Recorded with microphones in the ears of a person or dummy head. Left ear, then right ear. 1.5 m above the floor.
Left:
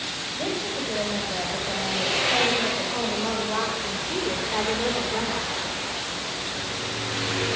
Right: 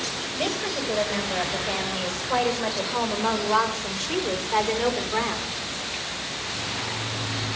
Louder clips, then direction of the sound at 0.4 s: Right 3 dB; 70° right (ahead or behind).